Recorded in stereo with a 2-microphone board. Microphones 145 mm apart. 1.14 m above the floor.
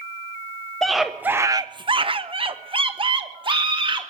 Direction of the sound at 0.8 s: 5° left (ahead or behind).